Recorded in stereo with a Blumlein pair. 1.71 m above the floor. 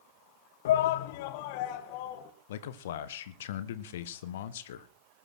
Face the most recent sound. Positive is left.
turn(degrees=60)